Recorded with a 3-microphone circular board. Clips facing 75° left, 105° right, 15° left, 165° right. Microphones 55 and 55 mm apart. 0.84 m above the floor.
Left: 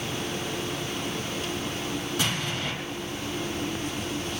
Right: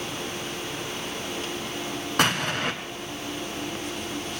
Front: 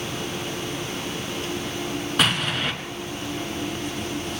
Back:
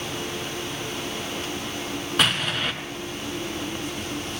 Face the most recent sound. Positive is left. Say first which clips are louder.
# right 9 dB, even
turn(degrees=-75)